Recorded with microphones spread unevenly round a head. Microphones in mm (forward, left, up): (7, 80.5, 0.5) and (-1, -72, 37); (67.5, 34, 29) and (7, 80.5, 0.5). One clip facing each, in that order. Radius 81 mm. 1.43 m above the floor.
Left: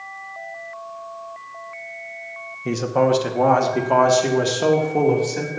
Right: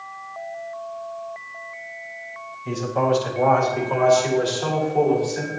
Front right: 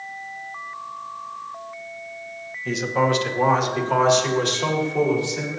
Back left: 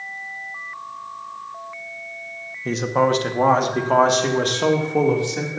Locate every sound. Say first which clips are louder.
2.6 s a man speaking: left 3 dB, back left 2 dB; 95° left, 1.4 m; by 5.6 s 115° left, 3 m